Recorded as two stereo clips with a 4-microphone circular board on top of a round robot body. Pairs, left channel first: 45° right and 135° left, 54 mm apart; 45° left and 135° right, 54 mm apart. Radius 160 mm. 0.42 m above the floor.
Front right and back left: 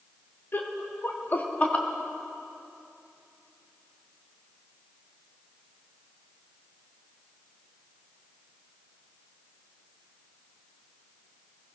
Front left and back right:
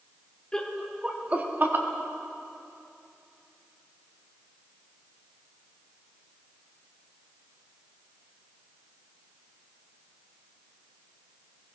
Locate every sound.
0.5 s laughter: 25° right, 1.8 m; by 1.9 s 105° right, 2 m